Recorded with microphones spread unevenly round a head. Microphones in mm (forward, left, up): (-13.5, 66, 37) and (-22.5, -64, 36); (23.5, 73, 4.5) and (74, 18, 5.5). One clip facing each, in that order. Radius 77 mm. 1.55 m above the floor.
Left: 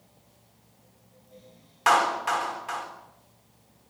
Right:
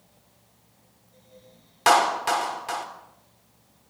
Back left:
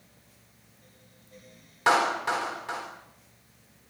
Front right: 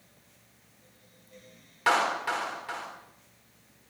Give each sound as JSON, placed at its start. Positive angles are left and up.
{"t": 1.9, "sound": "a clap", "azimuth_deg": -150, "distance_m": 3.0}